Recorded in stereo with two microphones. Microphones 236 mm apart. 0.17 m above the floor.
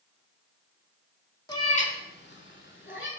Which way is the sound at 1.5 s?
15° left (ahead or behind).